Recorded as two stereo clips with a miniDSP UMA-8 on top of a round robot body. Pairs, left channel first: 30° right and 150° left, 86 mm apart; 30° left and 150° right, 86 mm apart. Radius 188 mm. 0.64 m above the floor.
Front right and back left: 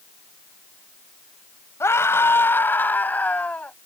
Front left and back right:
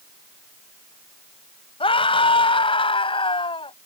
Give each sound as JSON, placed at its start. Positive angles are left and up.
{"t": 1.8, "sound": "a scream", "azimuth_deg": 30}